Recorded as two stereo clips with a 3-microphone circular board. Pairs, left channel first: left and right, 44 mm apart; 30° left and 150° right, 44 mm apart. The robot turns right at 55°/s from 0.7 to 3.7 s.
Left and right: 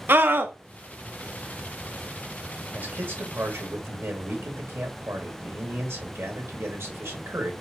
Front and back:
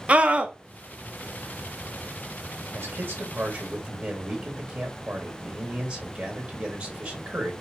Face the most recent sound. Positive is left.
turn(degrees=-95)